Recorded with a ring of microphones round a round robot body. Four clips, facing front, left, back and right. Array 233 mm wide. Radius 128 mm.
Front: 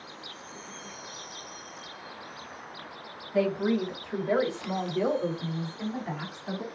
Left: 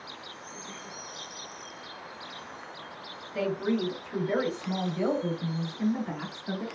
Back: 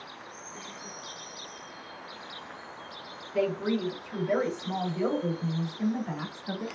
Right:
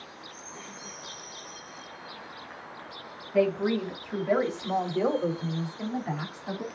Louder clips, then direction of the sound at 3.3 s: Right 4 dB, front 2 dB; 45° right.